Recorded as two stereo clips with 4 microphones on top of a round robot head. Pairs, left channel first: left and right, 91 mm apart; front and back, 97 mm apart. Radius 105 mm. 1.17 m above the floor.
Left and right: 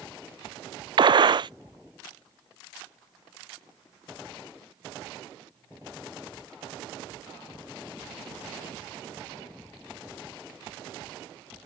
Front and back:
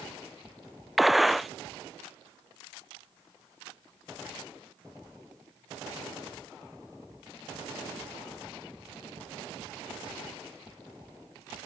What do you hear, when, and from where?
1.0 s a gunshot: 90° right